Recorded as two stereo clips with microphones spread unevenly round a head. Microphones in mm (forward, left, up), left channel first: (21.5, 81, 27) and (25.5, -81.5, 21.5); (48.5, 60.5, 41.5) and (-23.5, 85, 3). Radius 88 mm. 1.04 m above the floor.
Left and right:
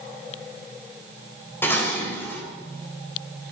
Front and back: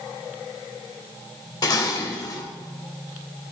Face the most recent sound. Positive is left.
turn(degrees=15)